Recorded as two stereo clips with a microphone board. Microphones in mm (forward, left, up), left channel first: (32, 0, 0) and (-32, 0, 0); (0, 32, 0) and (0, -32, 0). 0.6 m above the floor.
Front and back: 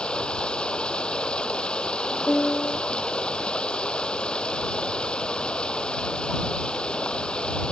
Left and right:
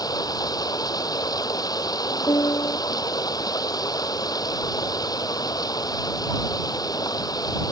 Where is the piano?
65° left.